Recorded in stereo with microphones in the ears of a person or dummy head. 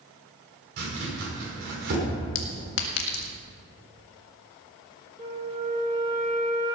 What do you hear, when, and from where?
0.8 s chopping: 60° right (ahead or behind), 6 m
2.4 s a clink: 60° left (ahead or behind), 1.9 m
5.2 s a flute: 25° right (ahead or behind), 3 m